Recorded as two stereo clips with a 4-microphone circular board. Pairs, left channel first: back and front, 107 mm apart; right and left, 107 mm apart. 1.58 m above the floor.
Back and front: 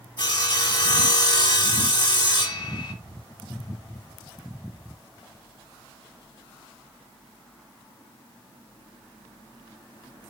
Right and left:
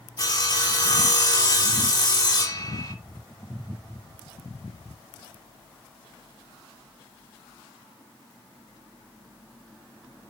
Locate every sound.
0.2 s sawing: 140° right, 2.5 m